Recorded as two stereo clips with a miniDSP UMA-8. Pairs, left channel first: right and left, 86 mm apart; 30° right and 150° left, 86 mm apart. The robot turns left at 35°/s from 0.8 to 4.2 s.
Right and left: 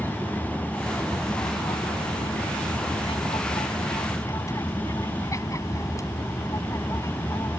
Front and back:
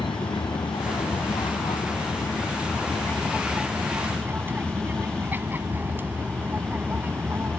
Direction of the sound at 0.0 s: 25° right.